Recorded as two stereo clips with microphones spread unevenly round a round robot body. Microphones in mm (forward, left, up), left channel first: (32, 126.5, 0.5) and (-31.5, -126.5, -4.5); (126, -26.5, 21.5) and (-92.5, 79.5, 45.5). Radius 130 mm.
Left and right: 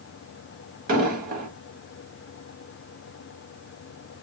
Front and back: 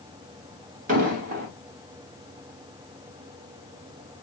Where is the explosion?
150° right, 1.3 m.